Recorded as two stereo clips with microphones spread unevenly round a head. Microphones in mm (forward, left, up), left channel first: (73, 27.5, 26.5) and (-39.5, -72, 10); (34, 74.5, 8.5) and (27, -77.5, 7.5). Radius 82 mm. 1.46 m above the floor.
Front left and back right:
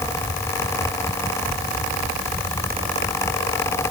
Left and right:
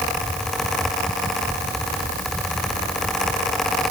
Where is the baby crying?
I don't hear a baby crying.